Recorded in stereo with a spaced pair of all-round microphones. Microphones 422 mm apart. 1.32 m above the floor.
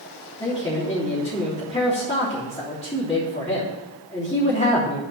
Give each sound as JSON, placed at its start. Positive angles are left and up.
{"t": 0.4, "sound": "a man speaking", "side_deg": 15, "distance_m": 3.5}